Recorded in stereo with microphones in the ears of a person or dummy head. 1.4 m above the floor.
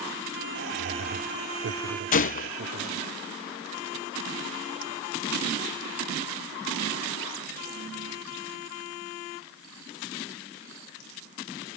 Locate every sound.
0.6 s laughter: 75° right (ahead or behind); by 3.1 s 55° right (ahead or behind)
2.1 s a gunshot: 40° left (ahead or behind)